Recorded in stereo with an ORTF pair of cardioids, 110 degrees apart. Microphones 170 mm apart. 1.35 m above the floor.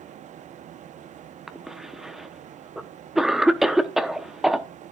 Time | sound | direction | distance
0.0 | a fan | 45° right | 0.8 m
1.5 | a cough | straight ahead | 0.8 m